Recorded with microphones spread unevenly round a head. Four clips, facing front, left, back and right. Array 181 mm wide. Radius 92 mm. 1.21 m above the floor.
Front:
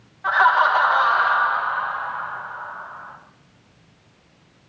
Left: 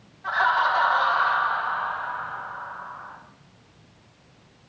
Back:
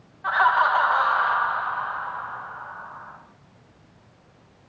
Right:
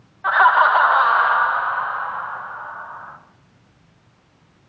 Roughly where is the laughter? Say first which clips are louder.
Right 8 dB, front 3 dB; ahead right.